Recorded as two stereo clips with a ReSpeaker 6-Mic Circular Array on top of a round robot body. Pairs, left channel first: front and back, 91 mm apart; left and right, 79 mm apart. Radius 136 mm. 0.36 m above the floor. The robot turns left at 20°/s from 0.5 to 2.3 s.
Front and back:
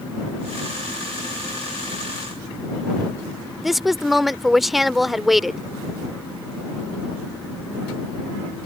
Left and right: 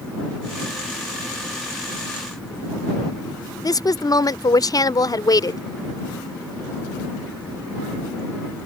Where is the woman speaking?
90° left.